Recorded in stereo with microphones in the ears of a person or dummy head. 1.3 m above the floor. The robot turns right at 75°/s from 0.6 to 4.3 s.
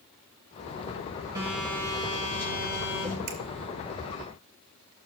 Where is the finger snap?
80° right, 2.5 m; by 3.4 s 85° right, 2.5 m.